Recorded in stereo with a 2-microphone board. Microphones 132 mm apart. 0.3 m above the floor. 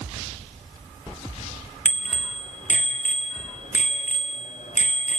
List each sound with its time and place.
1.9 s a bicycle bell: 70° left (ahead or behind), 2.5 m